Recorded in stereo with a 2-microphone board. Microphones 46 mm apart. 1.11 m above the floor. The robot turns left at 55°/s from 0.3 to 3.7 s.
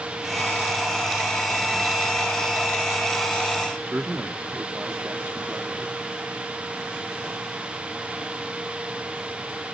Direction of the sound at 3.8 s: 40° right (ahead or behind).